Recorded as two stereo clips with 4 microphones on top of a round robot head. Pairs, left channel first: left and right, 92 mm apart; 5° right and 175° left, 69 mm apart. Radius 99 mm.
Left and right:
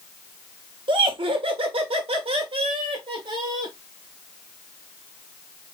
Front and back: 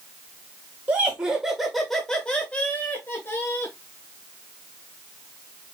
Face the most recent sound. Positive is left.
turn(degrees=-55)